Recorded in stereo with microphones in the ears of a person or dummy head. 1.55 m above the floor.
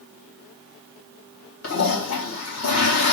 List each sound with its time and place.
1.6 s a toilet flushing: 80° left, 2 m